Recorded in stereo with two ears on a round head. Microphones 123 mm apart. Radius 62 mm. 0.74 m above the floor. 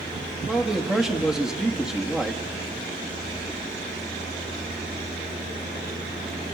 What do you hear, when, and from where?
0.5 s a man speaking: 5° right (ahead or behind), 1.4 m